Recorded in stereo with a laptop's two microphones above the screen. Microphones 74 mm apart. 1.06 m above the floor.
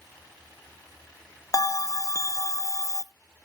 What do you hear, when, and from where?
1.5 s a bell: 45° left (ahead or behind), 0.6 m